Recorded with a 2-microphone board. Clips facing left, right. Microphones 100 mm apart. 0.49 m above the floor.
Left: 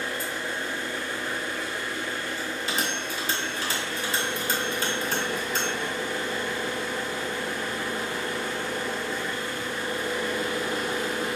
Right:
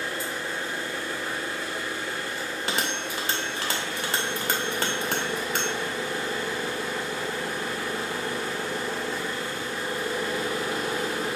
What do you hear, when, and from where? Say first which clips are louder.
0.0 s an engine running: even; 35° right (ahead or behind), 1.6 m
2.4 s a bell: right 1 dB; 65° right (ahead or behind), 0.7 m